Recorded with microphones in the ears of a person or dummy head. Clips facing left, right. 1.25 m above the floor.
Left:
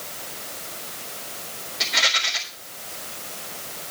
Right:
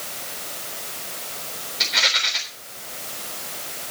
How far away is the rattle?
About 3.5 m.